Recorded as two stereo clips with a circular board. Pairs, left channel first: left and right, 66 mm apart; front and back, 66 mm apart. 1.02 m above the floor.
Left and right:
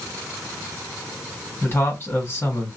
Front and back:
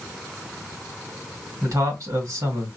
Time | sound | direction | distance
1.6 | a man speaking | 145° left | 1.7 m